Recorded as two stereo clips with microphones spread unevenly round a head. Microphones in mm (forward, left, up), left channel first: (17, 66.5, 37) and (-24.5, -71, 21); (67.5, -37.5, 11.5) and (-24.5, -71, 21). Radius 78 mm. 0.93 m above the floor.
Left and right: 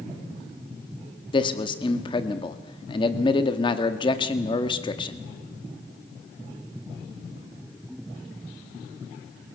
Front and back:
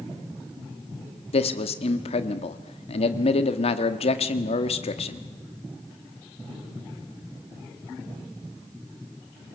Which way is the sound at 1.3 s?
15° left.